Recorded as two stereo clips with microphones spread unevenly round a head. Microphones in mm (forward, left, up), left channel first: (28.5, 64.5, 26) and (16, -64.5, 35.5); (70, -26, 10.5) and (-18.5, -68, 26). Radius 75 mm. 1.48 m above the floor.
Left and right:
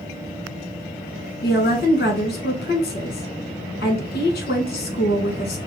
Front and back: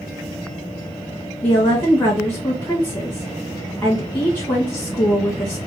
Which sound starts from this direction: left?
A woman speaking, at 1.4 s.